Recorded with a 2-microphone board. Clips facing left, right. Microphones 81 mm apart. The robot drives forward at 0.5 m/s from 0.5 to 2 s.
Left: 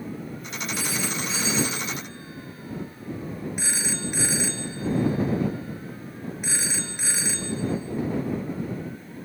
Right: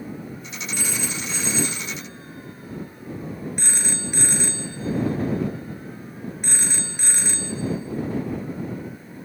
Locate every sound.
0.7 s a phone ringing: 5° left (ahead or behind), 2.0 m